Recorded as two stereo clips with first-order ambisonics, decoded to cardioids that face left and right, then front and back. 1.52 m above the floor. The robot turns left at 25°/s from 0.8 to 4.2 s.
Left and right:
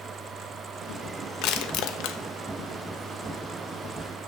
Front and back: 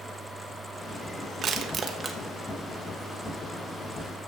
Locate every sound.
1.4 s crushing: 115° left, 0.8 m; by 2.2 s 95° left, 0.8 m